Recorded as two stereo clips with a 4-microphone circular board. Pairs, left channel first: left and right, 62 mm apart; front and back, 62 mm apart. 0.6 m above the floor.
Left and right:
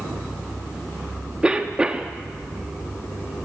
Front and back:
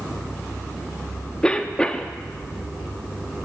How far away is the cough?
About 0.5 m.